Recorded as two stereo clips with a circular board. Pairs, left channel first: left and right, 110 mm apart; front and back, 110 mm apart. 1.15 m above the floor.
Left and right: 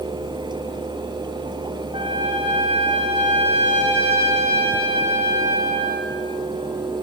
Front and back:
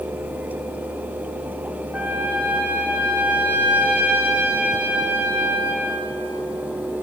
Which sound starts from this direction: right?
A trumpet, at 1.9 s.